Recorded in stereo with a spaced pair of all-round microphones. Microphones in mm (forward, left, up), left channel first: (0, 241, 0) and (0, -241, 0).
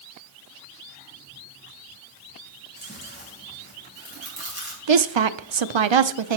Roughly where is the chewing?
Left.